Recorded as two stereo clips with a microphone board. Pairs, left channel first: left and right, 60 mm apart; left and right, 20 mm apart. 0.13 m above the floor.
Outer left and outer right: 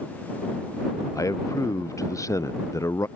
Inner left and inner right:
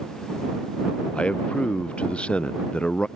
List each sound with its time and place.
1.1 s a man speaking: 65° left (ahead or behind); by 3.1 s 60° left (ahead or behind)